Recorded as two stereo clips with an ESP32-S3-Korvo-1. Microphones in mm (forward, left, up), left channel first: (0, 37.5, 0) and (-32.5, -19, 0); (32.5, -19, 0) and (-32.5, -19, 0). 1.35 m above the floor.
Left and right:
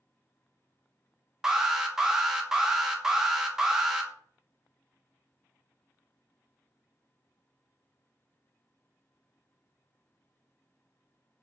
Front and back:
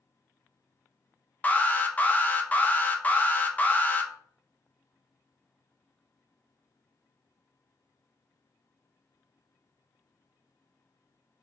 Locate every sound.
1.4 s an alarm: 45° right, 0.5 m